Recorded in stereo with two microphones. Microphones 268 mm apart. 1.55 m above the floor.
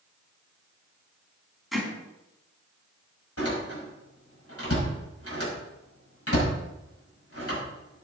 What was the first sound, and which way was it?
Hammering, centre (ahead or behind).